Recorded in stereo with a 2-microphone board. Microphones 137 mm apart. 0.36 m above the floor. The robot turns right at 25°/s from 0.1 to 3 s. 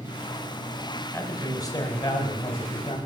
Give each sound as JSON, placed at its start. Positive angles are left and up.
{"t": 1.1, "sound": "a man speaking", "azimuth_deg": 25, "distance_m": 1.3}